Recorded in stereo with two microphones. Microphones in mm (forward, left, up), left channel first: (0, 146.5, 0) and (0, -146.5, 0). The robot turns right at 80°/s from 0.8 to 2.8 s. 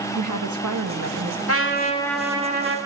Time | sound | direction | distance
0.1 | a woman speaking | 90° right | 1.5 m
1.5 | a trumpet | 125° left | 2 m